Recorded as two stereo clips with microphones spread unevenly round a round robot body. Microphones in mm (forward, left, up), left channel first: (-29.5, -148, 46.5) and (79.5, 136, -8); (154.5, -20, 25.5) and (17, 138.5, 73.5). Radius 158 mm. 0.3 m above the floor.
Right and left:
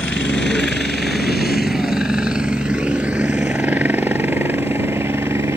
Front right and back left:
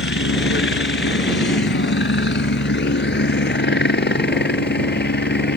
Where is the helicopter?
25° right; by 5.6 s 10° right.